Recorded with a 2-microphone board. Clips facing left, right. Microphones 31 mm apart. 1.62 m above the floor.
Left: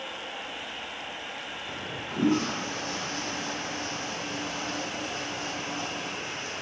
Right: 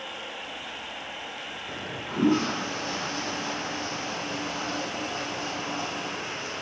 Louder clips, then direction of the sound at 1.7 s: Right 2 dB; 15° right (ahead or behind).